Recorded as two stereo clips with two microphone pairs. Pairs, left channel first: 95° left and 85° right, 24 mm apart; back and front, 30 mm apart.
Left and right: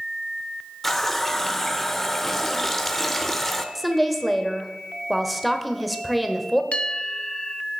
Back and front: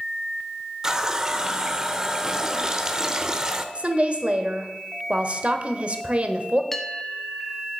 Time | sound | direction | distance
0.8 | a running tap | 35° left | 0.7 m
3.8 | a woman speaking | 5° left | 1.1 m
6.7 | a bell | 105° left | 1.0 m